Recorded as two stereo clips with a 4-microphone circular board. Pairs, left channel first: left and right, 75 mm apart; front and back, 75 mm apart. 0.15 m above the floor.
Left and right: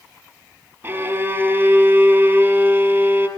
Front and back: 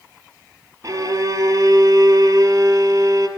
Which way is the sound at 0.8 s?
140° right.